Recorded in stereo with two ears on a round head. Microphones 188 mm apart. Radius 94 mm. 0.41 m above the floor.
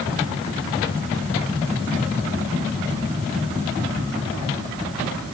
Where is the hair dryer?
I don't hear a hair dryer.